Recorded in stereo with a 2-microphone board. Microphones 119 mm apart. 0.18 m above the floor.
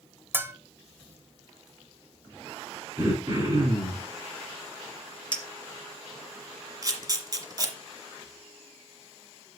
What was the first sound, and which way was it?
A bell, 20° right (ahead or behind).